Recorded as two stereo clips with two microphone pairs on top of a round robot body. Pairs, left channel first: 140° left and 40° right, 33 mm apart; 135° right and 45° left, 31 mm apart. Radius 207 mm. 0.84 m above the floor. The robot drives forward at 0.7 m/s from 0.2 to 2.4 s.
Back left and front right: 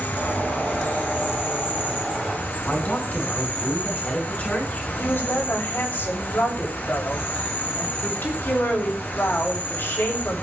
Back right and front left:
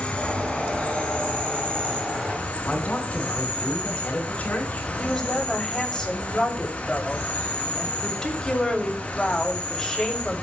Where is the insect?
165° left, 6 m; by 10.4 s 170° left, 7.5 m.